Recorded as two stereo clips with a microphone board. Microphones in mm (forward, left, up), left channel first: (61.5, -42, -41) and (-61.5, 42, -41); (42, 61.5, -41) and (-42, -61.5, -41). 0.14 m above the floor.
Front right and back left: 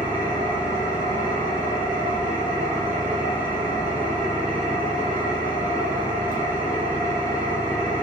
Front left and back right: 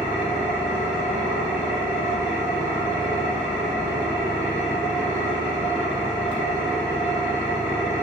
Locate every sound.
0.0 s an engine running: 25° right, 1.2 m